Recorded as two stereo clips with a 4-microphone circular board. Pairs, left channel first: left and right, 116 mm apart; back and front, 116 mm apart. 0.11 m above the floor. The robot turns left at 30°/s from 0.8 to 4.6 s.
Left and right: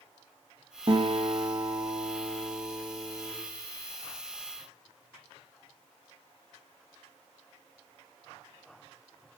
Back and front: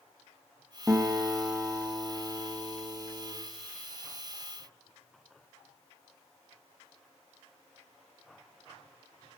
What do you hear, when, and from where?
0.9 s a guitar: 65° right, 3.5 m; by 3.3 s 140° right, 3.5 m